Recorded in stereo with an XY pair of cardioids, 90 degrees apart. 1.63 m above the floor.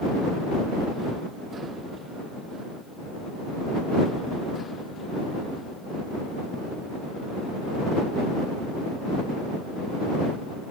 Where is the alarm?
No alarm in this recording.